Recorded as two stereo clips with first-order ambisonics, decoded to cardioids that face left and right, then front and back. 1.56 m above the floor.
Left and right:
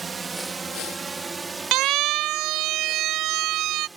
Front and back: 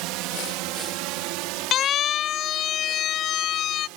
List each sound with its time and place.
0.0 s a drone: 165° right; by 4.0 s 170° right
1.7 s a siren: 55° right; by 3.9 s 50° right